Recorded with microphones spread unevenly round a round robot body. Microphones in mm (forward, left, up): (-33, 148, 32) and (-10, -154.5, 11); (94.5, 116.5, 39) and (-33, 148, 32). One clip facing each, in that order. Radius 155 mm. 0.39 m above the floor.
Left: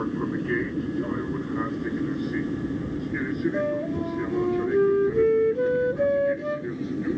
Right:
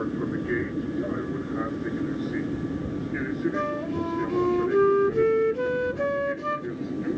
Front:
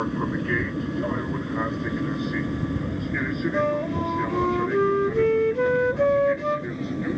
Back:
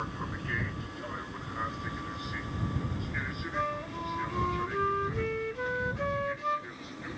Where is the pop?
No pop in this recording.